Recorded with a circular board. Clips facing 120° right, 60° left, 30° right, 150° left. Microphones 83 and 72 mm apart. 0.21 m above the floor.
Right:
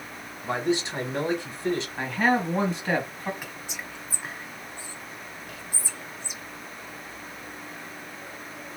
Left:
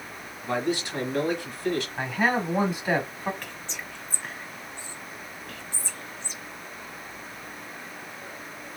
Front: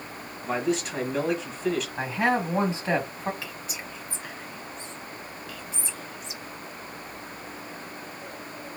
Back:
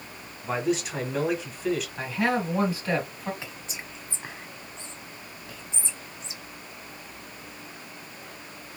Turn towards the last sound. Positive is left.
turn(degrees=170)